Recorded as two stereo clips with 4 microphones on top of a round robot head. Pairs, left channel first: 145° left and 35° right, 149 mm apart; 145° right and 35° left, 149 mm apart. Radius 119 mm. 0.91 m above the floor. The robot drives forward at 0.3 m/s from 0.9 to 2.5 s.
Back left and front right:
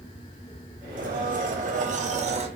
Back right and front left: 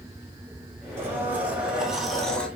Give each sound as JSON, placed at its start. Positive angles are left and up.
{"t": 1.0, "sound": "a blender", "azimuth_deg": -35, "distance_m": 1.1}